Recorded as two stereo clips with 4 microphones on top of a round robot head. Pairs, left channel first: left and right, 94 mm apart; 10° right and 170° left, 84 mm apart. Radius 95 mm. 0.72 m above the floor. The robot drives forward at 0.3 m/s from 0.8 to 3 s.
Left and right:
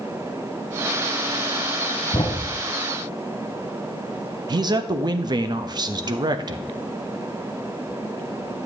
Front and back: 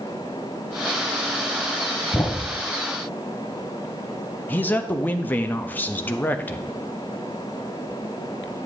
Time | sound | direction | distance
2.1 | a thud | 55° left | 0.6 m
4.5 | a man speaking | 75° right | 0.7 m